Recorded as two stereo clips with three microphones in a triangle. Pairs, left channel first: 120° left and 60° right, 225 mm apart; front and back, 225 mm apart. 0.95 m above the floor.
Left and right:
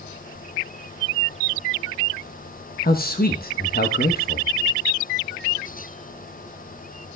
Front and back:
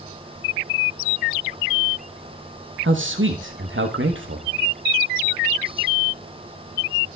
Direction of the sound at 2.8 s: 165° left.